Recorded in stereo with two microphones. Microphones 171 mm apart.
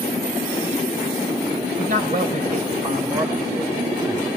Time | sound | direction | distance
1.8 | a man speaking | 55° right (ahead or behind) | 2 m